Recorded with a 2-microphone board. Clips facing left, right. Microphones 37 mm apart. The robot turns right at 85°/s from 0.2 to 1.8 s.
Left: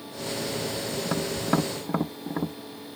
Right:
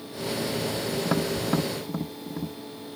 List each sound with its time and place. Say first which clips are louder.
1.1 s tapping: even; 15° right (ahead or behind); by 2.6 s 45° left (ahead or behind)